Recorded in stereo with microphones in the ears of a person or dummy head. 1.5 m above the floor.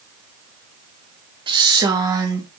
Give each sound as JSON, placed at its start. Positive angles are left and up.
{"t": 1.5, "sound": "a woman speaking", "side_deg": -20, "distance_m": 1.1}